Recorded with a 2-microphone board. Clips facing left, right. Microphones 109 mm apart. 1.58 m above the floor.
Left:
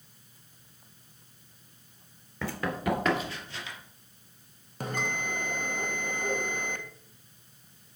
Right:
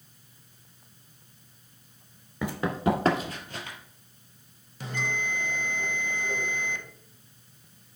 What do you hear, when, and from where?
2.4 s running footsteps: 15° right (ahead or behind), 1.6 m; by 3.8 s 50° right (ahead or behind), 2.5 m
4.8 s a bell: 50° left (ahead or behind), 1.0 m